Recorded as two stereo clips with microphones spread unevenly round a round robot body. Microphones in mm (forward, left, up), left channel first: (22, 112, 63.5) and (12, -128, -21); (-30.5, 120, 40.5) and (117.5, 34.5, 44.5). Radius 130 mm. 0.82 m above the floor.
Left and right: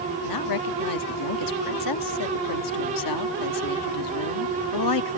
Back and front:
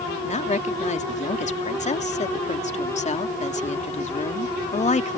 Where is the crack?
I don't hear a crack.